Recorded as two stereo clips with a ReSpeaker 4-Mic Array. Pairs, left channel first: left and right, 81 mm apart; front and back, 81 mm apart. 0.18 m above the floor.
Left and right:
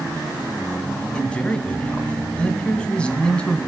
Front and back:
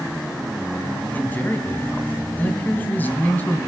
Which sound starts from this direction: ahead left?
A man speaking, at 1.1 s.